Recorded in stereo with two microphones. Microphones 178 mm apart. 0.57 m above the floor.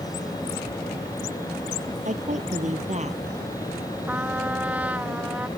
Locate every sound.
2.0 s a woman speaking: 45° right (ahead or behind); by 3.2 s 40° right (ahead or behind)
4.1 s a trumpet: 10° right (ahead or behind)